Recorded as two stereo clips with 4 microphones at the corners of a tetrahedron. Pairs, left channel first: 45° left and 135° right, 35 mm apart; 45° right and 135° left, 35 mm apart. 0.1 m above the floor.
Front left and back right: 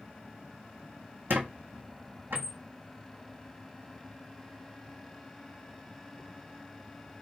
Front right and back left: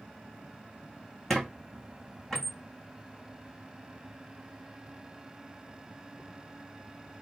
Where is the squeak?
120° right, 1.0 m.